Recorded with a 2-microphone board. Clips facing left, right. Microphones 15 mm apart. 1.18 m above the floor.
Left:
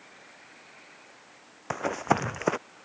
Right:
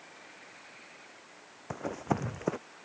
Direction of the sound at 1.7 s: 50° left (ahead or behind).